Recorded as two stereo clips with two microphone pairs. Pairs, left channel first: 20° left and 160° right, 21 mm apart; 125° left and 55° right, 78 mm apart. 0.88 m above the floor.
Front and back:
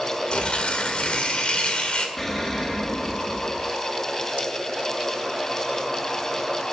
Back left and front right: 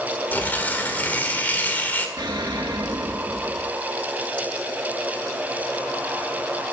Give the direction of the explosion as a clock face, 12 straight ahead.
2 o'clock.